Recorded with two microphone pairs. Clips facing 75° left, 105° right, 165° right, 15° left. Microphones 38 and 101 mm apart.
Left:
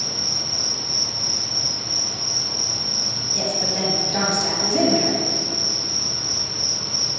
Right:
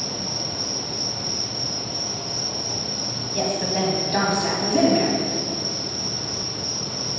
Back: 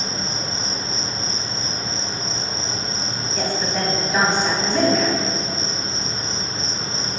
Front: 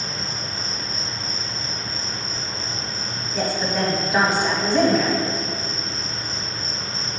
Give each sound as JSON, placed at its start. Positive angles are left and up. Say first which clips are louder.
{"t": 0.0, "sound": "an insect", "louder": "even, back 3 dB", "azimuth_deg": -155, "distance_m": 0.8}
{"t": 3.3, "sound": "a woman speaking", "louder": "right 2 dB, front 1 dB", "azimuth_deg": -70, "distance_m": 1.2}